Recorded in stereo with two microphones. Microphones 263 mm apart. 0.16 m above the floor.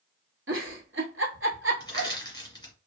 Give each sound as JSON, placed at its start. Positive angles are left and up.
{"t": 0.5, "sound": "a giggle", "side_deg": -55, "distance_m": 1.1}
{"t": 1.8, "sound": "crushing", "side_deg": 15, "distance_m": 1.8}